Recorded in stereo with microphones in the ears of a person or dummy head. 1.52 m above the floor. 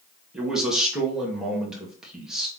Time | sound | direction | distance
0.3 | a man speaking | 5° right (ahead or behind) | 1.7 m